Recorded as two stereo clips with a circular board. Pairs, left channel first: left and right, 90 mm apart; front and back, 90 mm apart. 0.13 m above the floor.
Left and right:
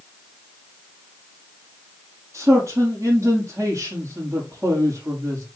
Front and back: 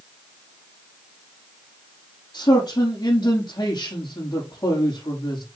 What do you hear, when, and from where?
2.3 s a man speaking: 35° right, 4.5 m